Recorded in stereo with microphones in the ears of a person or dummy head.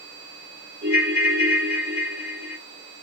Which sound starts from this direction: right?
A ringtone, at 0.8 s.